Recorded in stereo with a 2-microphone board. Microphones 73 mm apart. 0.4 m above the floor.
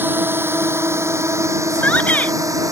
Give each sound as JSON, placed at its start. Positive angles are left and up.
{"t": 0.0, "sound": "a drone", "side_deg": -30}
{"t": 1.7, "sound": "a shout", "side_deg": 20}